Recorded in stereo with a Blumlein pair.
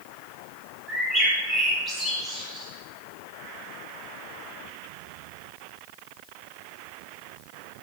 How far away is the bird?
About 2.5 m.